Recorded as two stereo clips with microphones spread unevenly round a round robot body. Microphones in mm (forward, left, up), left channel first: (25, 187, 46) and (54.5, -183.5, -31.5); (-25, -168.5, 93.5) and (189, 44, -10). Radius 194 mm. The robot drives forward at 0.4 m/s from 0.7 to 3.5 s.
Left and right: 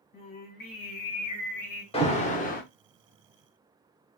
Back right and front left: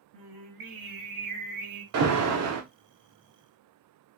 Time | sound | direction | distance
0.1 | singing | 55° left | 1.4 m
1.9 | an alarm | 15° left | 0.9 m